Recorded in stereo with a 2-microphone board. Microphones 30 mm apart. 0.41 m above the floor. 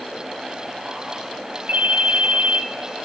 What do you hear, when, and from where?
1.7 s a ringtone: 75° right (ahead or behind), 1.7 m